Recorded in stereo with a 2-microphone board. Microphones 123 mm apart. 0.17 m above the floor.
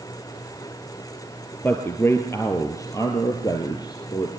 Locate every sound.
1.6 s a man speaking: 15° left (ahead or behind), 3 m; by 4.3 s 35° left (ahead or behind), 4 m